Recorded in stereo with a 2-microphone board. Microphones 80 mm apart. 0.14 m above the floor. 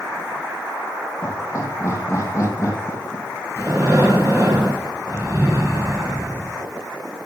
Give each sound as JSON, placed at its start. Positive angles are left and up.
{"t": 1.2, "sound": "laughter", "side_deg": 40, "distance_m": 4.5}
{"t": 3.6, "sound": "breathing", "side_deg": -35, "distance_m": 3.0}